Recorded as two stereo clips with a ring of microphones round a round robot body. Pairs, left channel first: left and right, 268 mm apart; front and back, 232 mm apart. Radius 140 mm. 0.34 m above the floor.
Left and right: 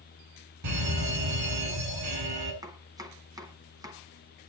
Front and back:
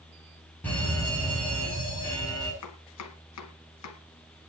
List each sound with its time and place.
0.6 s a fire alarm: 85° right, 6.5 m
2.6 s chopping: 15° right, 1.9 m